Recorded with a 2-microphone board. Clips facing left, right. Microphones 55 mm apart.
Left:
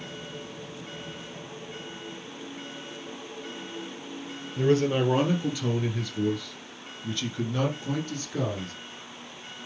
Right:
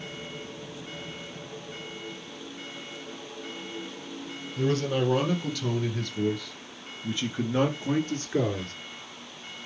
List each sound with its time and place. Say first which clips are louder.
4.6 s a man speaking: left 3 dB; 30° left (ahead or behind), 2.5 m; by 8.7 s 45° right (ahead or behind), 2.5 m